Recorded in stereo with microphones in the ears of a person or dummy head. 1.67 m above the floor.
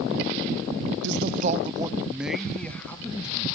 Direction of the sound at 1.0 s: 65° right (ahead or behind).